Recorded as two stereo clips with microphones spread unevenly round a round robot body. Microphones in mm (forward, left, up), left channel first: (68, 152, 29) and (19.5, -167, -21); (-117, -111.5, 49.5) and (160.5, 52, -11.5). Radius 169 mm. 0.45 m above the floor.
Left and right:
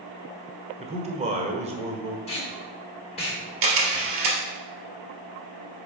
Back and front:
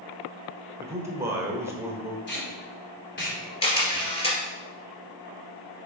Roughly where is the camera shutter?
Right.